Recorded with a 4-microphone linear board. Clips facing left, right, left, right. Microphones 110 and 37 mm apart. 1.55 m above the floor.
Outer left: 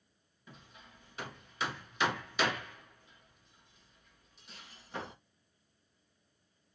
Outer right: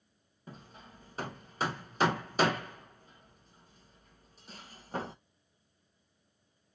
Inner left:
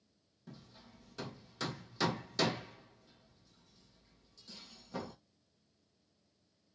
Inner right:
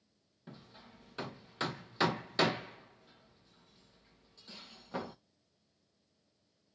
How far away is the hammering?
About 0.8 m.